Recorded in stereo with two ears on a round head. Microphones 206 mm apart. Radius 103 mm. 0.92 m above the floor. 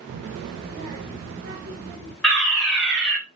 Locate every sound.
0.1 s a child speaking: 70° right (ahead or behind), 0.6 m; by 2.1 s 30° right (ahead or behind), 2.5 m
2.2 s a fire alarm: 5° left (ahead or behind), 2.5 m